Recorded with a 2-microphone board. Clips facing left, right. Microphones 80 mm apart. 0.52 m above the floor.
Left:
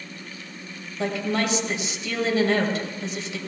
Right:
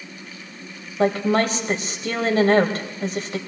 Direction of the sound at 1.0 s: 45° right (ahead or behind).